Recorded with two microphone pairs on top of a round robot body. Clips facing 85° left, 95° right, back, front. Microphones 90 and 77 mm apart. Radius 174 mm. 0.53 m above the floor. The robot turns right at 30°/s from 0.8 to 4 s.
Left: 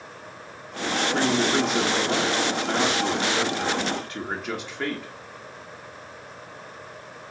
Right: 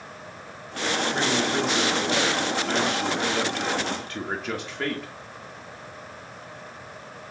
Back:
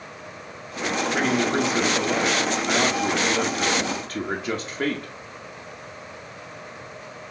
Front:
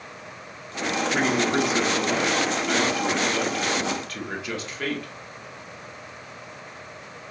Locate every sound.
1.1 s a man speaking: 85° left, 1.4 m; by 5.1 s 170° left, 1.4 m